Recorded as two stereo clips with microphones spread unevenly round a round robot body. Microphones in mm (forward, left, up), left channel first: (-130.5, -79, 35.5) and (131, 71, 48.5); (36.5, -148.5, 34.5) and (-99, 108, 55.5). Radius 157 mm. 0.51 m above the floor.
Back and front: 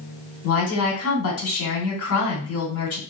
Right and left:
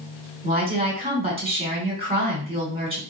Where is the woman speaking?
170° right, 2.0 m.